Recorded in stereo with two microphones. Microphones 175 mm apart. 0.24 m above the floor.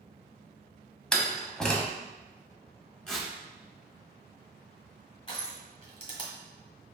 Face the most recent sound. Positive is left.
turn(degrees=30)  # may be behind; listen again after turning